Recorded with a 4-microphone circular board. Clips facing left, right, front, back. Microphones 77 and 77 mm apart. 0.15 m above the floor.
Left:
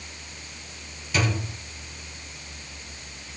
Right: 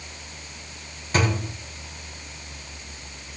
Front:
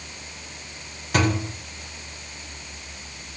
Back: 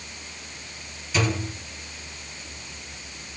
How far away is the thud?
About 3.5 m.